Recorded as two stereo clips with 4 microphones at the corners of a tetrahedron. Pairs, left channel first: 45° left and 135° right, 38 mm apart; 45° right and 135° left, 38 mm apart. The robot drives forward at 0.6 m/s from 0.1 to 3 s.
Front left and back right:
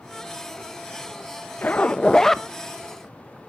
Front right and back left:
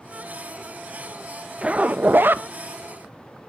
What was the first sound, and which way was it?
A zipper, 75° left.